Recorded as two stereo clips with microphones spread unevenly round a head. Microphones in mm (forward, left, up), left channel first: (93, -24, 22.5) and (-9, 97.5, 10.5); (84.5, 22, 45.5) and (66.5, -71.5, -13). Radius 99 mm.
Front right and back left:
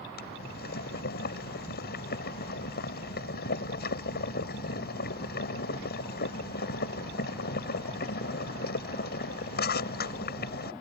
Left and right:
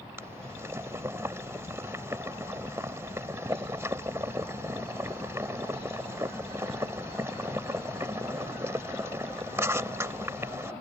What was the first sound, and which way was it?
Boiling, 35° right.